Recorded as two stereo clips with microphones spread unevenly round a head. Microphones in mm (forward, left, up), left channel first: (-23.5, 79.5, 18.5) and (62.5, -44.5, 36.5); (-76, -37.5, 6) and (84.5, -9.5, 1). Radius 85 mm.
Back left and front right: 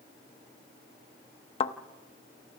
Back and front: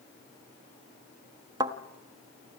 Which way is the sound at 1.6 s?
75° left.